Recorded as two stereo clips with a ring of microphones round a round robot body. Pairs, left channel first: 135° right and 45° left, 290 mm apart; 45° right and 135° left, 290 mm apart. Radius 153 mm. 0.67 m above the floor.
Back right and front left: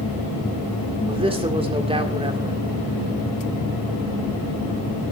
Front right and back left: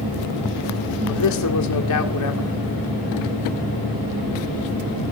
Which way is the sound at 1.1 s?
25° right.